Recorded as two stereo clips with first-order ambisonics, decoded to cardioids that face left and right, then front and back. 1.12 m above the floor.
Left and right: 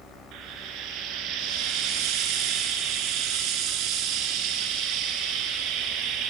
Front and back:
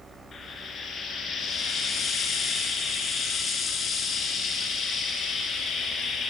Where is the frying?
60° right, 3 m.